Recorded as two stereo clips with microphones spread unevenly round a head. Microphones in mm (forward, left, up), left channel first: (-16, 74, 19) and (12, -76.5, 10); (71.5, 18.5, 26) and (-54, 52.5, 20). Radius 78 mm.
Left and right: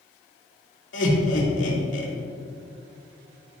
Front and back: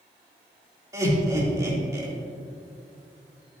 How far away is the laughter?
About 3 m.